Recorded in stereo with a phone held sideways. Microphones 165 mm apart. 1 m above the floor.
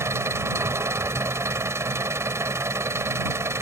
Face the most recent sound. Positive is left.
turn(degrees=-15)  # may be behind; listen again after turning